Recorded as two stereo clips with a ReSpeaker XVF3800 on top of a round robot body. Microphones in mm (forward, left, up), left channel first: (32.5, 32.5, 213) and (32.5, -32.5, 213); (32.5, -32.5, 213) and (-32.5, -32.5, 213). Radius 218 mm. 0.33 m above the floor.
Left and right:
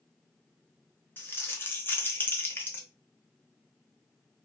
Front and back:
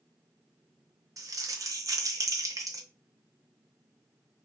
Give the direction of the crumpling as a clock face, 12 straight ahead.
7 o'clock.